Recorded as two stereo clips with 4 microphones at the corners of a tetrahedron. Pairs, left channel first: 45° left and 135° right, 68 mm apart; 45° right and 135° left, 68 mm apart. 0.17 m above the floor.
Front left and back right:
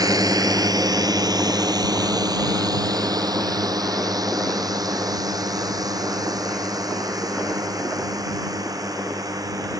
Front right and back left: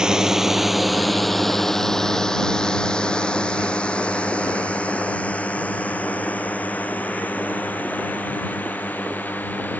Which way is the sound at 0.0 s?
145° right.